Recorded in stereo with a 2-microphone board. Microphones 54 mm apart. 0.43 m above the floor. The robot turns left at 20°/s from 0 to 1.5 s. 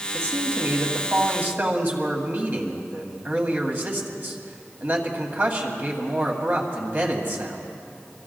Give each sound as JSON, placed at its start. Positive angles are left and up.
{"t": 0.1, "sound": "a man speaking", "side_deg": -60, "distance_m": 2.0}